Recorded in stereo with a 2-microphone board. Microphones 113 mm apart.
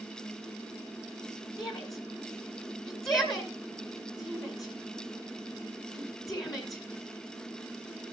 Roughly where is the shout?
Left.